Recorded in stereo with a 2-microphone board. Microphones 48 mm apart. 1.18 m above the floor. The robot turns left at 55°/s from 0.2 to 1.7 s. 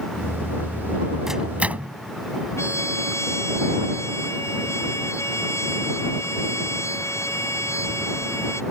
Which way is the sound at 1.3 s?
5° right (ahead or behind).